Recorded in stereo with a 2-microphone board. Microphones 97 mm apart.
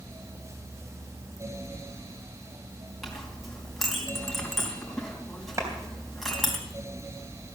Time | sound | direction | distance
3.0 | a clink | centre (ahead or behind) | 3 m
5.6 | a clap | 30° right (ahead or behind) | 3 m